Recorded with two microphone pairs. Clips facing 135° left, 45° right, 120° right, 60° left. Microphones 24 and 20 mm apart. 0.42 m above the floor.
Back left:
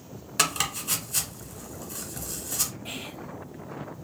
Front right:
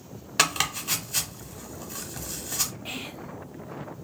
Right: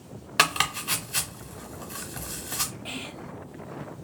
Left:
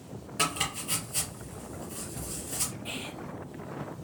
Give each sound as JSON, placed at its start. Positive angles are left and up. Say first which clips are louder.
{"t": 0.4, "sound": "chopping", "louder": "front right 2 dB, right 7 dB", "azimuth_deg": -115, "distance_m": 0.7}
{"t": 2.9, "sound": "whispering", "louder": "front right 1 dB, right 1 dB", "azimuth_deg": -100, "distance_m": 0.8}